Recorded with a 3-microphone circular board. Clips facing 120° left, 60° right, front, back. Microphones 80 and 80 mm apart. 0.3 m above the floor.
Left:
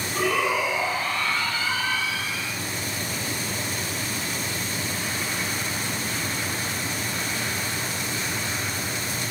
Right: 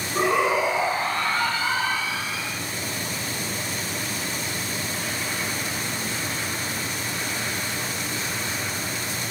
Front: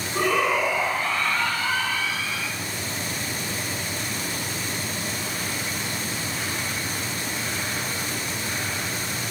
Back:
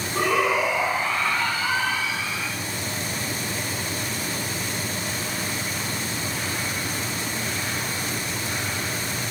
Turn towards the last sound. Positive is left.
turn(degrees=-100)